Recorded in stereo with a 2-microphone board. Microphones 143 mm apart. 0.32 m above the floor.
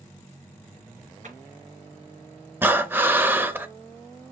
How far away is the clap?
About 3.5 m.